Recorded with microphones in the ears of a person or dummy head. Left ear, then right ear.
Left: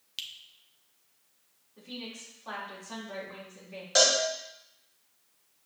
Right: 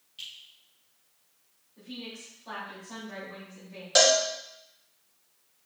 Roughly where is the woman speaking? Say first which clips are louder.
Even; left.